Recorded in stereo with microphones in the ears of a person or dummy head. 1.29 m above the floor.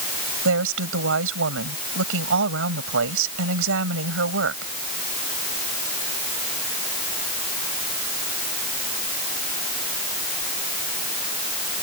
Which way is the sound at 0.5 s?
90° right.